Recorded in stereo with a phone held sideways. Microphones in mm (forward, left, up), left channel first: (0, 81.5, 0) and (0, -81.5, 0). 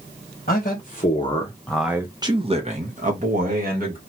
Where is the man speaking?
55° left (ahead or behind), 1.1 m; by 4.0 s 65° right (ahead or behind), 1.7 m.